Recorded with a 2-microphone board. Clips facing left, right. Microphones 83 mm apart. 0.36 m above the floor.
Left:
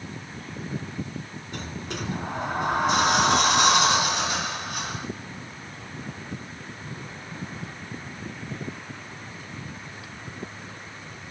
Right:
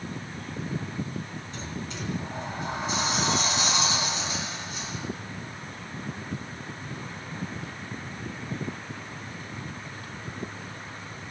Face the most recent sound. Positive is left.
turn(degrees=65)  # may be behind; listen again after turning